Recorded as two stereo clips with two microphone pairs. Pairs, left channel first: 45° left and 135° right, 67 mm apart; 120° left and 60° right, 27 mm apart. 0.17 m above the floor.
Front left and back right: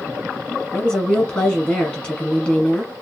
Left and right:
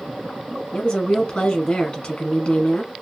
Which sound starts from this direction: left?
A woman speaking, at 0.7 s.